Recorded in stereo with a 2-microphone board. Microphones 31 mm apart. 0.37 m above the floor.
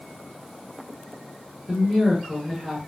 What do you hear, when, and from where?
1.7 s a woman speaking: 20° right (ahead or behind), 1.5 m